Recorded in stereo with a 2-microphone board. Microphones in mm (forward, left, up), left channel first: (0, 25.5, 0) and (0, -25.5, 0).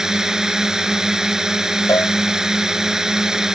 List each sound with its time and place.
0.0 s a drone: 10° right (ahead or behind)
1.9 s a cowbell: 80° left